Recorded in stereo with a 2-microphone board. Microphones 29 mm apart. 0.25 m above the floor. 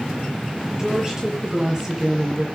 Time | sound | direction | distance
0.8 | a woman speaking | 20° right (ahead or behind) | 6.5 m